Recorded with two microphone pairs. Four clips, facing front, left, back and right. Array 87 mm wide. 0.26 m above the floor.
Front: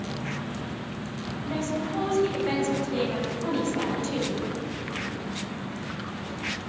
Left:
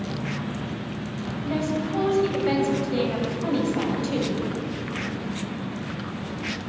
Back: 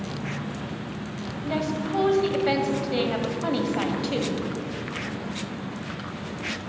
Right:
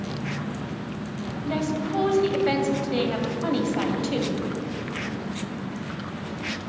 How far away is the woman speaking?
About 1.3 m.